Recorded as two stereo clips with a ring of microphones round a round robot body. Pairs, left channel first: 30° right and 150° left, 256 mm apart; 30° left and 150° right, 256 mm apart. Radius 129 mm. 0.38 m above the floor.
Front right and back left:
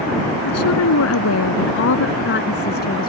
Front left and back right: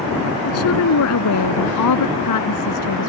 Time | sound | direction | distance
0.5 | a woman speaking | 5° right | ?